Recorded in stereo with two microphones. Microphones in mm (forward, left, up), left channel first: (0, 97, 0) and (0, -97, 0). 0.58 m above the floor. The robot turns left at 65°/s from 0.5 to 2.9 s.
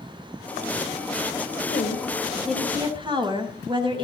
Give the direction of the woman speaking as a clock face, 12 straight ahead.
10 o'clock.